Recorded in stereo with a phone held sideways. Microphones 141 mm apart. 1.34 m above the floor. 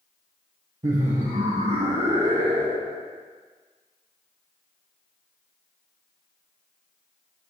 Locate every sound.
0.8 s laughter: 60° right (ahead or behind), 0.8 m; by 3.0 s 70° right (ahead or behind), 2.5 m